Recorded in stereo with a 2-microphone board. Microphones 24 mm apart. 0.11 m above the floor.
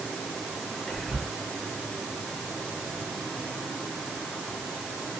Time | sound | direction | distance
0.9 | whispering | 25° left (ahead or behind) | 2.0 m